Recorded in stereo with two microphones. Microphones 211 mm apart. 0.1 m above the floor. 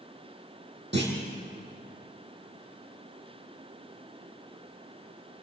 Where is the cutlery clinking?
No cutlery clinking in this recording.